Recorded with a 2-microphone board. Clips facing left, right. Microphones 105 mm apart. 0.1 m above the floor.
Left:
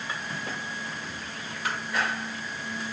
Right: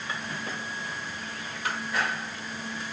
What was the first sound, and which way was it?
Only background noise.